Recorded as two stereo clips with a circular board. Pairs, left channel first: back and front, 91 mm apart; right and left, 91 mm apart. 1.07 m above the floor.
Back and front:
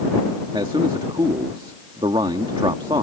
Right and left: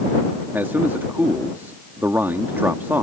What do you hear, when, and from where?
0.5 s a man speaking: 25° left